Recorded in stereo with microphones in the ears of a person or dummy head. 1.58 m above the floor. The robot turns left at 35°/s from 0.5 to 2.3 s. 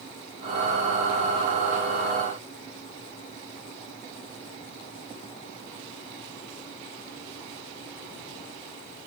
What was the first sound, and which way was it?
Only background noise.